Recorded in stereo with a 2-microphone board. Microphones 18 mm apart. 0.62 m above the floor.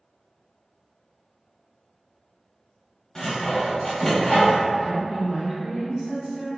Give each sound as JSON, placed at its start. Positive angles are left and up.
{"t": 3.1, "sound": "sawing", "side_deg": 35, "distance_m": 1.1}
{"t": 4.8, "sound": "a woman speaking", "side_deg": -40, "distance_m": 2.0}